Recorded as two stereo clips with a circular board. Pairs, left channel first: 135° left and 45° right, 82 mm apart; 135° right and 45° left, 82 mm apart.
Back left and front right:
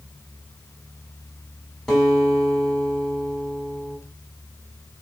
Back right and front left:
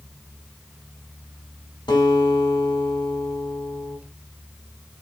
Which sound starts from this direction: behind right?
A guitar, at 1.9 s.